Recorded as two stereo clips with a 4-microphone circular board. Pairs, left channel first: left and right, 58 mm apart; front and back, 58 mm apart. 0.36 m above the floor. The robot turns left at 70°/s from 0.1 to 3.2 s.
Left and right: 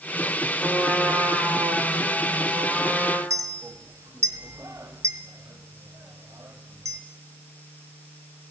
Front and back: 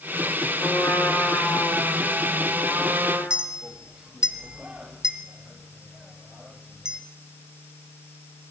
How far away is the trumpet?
About 6 m.